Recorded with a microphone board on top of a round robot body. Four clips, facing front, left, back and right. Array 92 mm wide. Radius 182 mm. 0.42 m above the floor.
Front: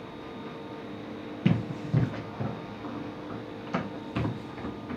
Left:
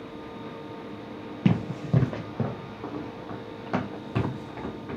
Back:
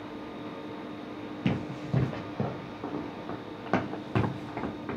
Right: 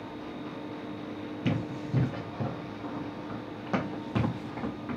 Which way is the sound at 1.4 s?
80° left.